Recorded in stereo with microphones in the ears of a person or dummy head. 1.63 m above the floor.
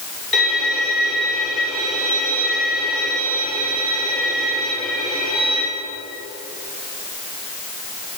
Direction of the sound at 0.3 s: 5° left (ahead or behind).